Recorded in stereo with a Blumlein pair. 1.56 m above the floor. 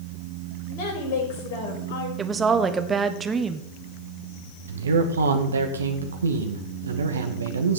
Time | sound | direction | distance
0.7 | a woman speaking | 45° left | 6 m
2.2 | a woman speaking | 20° right | 1.2 m
4.7 | a man speaking | 70° right | 1.9 m